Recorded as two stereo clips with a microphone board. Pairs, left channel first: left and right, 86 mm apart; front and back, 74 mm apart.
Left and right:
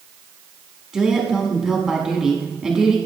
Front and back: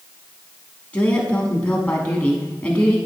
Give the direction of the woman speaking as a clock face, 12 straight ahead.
1 o'clock.